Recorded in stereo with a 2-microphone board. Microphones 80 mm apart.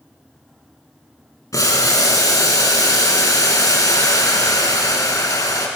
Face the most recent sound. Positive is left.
turn(degrees=45)  # may be behind; listen again after turning